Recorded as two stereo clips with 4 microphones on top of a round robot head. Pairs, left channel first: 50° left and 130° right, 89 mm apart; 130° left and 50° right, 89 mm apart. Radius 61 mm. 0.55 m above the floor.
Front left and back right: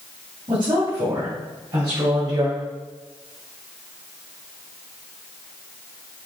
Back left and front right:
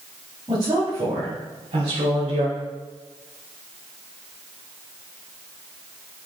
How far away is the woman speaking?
About 4 m.